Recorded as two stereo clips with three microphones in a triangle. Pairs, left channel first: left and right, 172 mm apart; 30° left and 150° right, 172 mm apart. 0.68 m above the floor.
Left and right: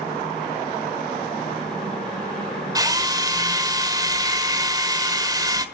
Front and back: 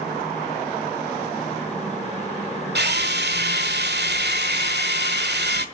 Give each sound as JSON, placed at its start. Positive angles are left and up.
{"t": 2.8, "sound": "a drill", "azimuth_deg": -160, "distance_m": 1.4}